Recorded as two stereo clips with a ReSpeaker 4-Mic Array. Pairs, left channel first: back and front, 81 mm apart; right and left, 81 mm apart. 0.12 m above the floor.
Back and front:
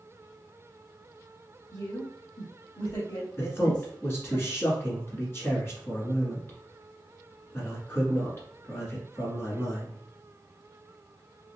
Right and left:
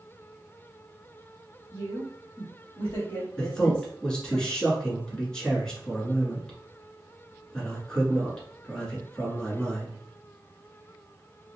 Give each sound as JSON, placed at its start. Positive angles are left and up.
{"t": 1.7, "sound": "a woman speaking", "azimuth_deg": -150, "distance_m": 2.0}
{"t": 3.4, "sound": "a man speaking", "azimuth_deg": -165, "distance_m": 1.6}